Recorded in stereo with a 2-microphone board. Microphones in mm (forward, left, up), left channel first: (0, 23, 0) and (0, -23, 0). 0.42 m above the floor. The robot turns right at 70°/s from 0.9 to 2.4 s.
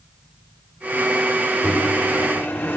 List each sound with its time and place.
1.6 s a microwave: 25° left, 1.2 m; by 2.8 s 80° left, 1.2 m